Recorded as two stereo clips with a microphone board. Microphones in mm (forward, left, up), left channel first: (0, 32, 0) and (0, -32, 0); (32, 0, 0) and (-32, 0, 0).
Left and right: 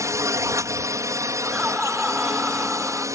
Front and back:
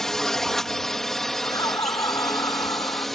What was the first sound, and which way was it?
A drone, 85° right.